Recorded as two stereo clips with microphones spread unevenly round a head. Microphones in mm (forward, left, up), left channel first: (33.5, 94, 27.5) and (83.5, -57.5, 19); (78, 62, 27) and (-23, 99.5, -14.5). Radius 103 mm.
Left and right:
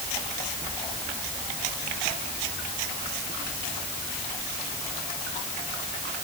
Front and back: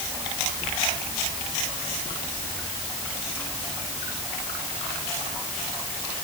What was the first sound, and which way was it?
Only background noise.